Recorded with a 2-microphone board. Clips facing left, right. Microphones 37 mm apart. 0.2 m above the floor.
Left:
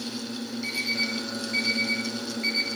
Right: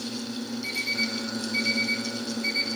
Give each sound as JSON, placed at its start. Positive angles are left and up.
{"t": 0.6, "sound": "an alarm clock", "side_deg": 45, "distance_m": 7.5}